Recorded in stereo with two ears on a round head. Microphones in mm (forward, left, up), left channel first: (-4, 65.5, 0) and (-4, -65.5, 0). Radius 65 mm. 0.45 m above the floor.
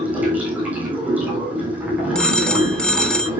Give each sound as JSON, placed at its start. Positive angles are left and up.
{"t": 0.0, "sound": "running water", "side_deg": -10, "distance_m": 5.0}
{"t": 2.1, "sound": "a phone ringing", "side_deg": 5, "distance_m": 0.7}